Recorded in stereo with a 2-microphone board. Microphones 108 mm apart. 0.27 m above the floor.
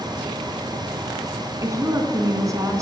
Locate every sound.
1.6 s a woman speaking: 30° right (ahead or behind), 3 m